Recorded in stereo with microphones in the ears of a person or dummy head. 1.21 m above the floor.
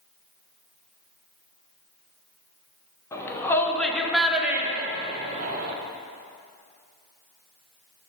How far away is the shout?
About 2.5 m.